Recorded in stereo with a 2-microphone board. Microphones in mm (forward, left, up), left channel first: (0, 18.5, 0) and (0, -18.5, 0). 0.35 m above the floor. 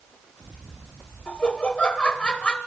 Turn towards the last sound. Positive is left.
turn(degrees=30)  # may be behind; listen again after turning